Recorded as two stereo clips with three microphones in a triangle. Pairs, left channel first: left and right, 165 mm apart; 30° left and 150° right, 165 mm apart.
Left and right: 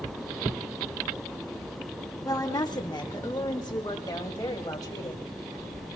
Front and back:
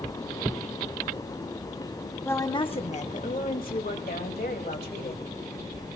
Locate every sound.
2.2 s a woman speaking: 80° left, 0.9 m; by 5.2 s 25° left, 3 m